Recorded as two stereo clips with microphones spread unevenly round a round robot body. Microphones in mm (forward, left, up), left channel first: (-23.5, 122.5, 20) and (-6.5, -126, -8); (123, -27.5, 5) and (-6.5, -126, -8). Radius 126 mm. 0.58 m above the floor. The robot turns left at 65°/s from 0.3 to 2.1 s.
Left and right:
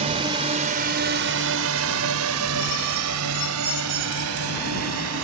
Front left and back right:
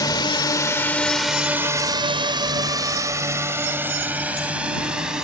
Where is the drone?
25° right; by 5.2 s 55° right.